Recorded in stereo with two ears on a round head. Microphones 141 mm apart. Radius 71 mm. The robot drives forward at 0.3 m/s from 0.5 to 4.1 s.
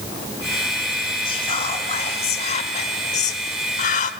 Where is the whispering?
35° left (ahead or behind), 1.5 m; by 4.1 s 50° left (ahead or behind), 1.1 m.